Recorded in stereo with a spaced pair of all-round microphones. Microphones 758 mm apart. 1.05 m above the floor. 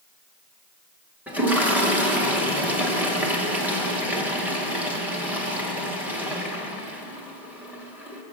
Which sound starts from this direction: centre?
A toilet flushing, at 1.3 s.